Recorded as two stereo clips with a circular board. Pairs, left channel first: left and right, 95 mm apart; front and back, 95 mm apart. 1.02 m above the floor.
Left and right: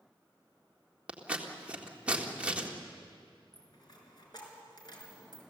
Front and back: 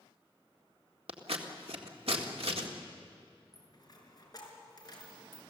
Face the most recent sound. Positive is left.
turn(degrees=50)